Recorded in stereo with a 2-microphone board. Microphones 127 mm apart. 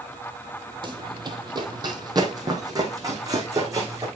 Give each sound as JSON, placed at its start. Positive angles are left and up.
{"t": 0.8, "sound": "running footsteps", "side_deg": -35, "distance_m": 1.0}